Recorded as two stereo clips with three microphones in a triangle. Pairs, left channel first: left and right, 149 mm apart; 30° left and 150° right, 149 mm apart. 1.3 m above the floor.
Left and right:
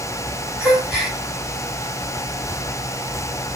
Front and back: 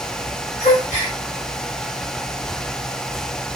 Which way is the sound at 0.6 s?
10° right.